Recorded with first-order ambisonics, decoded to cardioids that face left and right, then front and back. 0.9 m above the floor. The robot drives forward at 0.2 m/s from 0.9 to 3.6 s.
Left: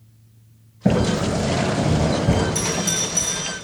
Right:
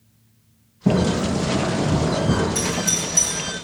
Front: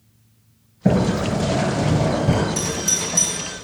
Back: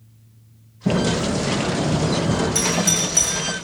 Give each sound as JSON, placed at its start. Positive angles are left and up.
{"t": 0.8, "sound": "a sliding door", "azimuth_deg": 50, "distance_m": 3.5}
{"t": 2.5, "sound": "a doorbell", "azimuth_deg": 165, "distance_m": 3.5}